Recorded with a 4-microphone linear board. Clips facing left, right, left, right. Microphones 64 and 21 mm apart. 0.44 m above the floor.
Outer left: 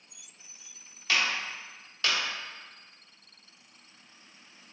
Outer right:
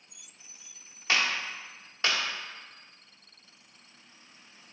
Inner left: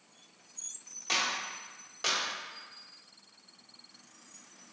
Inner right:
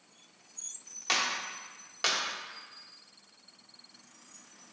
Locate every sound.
1.1 s a clap: 30° right (ahead or behind), 0.9 m